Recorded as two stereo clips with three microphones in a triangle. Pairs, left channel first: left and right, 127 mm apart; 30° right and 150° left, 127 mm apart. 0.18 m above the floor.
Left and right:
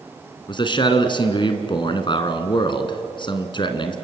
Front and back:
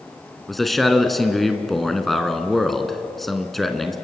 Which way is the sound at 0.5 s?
60° left.